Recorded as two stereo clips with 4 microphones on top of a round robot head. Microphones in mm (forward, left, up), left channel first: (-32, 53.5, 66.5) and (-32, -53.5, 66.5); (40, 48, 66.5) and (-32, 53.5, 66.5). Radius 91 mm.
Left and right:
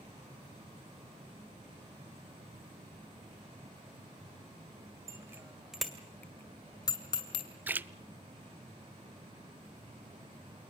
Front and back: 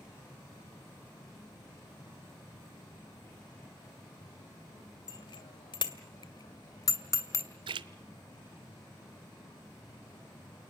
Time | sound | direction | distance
5.1 | a bicycle bell | 25° right | 2.5 m
7.7 | a splash | 165° right | 0.5 m